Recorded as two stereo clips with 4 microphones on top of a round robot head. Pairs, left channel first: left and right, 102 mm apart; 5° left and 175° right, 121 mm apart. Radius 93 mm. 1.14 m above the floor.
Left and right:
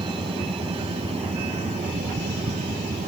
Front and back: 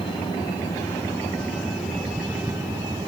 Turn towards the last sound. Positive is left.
turn(degrees=-110)